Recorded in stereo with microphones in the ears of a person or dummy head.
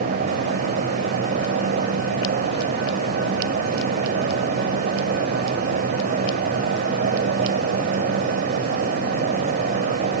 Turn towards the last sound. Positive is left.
turn(degrees=-55)  # may be behind; listen again after turning